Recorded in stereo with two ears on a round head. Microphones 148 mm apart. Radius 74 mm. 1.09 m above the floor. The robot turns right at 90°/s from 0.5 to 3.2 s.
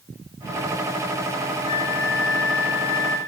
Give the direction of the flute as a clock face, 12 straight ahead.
11 o'clock.